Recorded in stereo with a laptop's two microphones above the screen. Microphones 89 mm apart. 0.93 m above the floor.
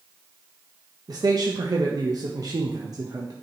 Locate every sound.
1.1 s a man speaking: 45° right (ahead or behind), 0.7 m